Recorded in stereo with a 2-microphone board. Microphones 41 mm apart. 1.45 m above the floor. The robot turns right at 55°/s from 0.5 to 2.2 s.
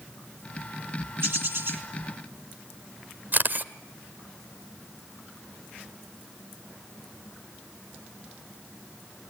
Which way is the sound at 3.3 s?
45° right (ahead or behind).